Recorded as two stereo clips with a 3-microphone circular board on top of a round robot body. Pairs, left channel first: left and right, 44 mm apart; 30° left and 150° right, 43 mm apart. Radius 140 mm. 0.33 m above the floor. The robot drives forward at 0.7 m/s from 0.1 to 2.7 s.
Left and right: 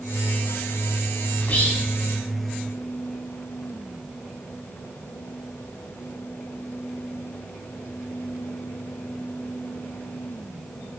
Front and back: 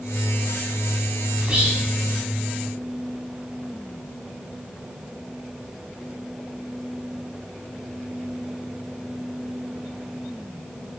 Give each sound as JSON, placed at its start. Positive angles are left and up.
{"t": 1.4, "sound": "whispering", "azimuth_deg": 140, "distance_m": 3.0}